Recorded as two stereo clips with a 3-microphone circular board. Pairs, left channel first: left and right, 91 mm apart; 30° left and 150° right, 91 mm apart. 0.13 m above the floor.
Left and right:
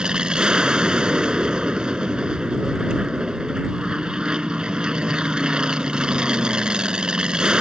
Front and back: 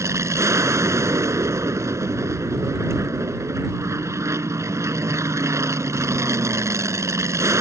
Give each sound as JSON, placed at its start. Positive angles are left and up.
{"t": 0.0, "sound": "an aircraft", "azimuth_deg": -165}